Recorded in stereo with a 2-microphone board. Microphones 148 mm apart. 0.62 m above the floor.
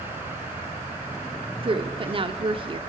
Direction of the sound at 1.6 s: 40° right (ahead or behind).